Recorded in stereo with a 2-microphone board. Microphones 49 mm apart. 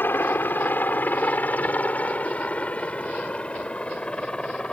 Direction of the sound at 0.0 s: 45° left (ahead or behind).